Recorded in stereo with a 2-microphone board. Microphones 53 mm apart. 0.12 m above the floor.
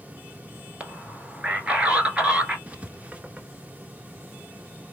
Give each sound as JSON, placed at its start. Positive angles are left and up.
{"t": 0.8, "sound": "a man speaking", "side_deg": -20, "distance_m": 1.5}
{"t": 2.7, "sound": "writing", "side_deg": -25, "distance_m": 0.9}